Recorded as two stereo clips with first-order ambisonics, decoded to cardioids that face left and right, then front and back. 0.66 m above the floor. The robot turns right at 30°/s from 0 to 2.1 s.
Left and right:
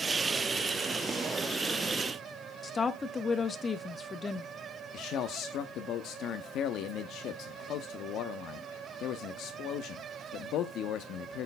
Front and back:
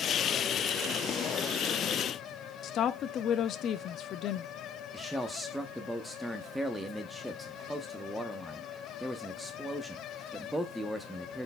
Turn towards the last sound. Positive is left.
turn(degrees=90)